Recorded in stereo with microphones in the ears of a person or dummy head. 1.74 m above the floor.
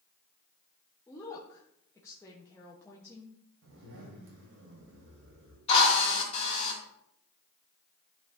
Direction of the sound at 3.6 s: 60° right (ahead or behind).